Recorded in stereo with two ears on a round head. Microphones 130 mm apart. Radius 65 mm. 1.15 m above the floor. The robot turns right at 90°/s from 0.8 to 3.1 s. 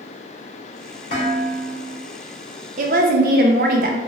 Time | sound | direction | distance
1.1 | dishes clattering | 55° left | 1.8 m
2.8 | a woman speaking | 55° right (ahead or behind) | 0.6 m